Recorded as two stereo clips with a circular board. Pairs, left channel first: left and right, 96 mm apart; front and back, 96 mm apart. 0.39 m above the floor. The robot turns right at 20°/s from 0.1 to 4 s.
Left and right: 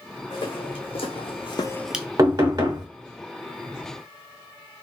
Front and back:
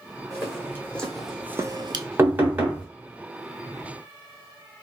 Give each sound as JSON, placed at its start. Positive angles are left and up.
{"t": 0.3, "sound": "footsteps", "azimuth_deg": 60, "distance_m": 2.0}
{"t": 2.2, "sound": "knocking", "azimuth_deg": -125, "distance_m": 1.2}